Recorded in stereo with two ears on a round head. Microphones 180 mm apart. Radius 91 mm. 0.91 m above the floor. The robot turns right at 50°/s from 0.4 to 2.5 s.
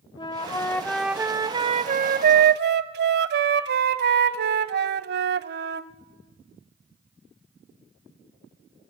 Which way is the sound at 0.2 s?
150° left.